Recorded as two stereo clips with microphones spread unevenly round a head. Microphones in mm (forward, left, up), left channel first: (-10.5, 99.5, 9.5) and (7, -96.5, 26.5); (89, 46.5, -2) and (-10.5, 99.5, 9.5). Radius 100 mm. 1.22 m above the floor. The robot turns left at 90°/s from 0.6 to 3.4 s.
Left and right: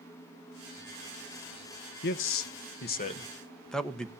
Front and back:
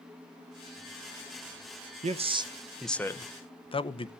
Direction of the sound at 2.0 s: 135° left.